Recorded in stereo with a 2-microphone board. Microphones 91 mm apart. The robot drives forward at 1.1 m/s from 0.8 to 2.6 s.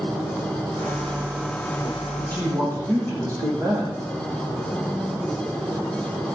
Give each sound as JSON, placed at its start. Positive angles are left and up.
{"t": 2.2, "sound": "a man speaking", "side_deg": -45, "distance_m": 8.0}